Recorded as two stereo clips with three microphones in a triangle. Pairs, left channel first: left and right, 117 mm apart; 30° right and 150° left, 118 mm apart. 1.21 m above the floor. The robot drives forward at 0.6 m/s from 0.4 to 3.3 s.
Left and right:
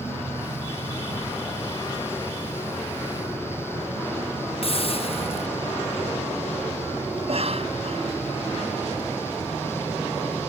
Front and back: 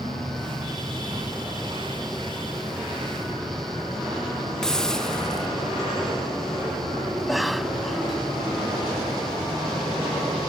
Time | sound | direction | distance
4.6 | a hiss | 55° left | ?
7.2 | a cough | 120° right | ?